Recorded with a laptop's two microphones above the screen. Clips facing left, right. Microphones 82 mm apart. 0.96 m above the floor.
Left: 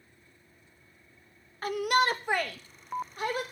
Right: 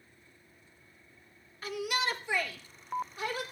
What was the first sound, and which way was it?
A shout, 50° left (ahead or behind).